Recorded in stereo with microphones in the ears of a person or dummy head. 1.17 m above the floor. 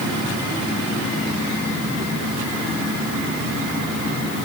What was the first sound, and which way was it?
Only background noise.